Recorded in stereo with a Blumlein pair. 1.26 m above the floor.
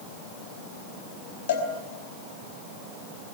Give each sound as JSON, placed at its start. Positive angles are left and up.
{"t": 1.5, "sound": "a cowbell", "azimuth_deg": 60, "distance_m": 4.5}